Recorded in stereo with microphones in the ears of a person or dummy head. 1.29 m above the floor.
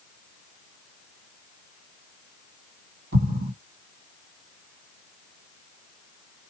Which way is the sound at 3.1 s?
65° right (ahead or behind).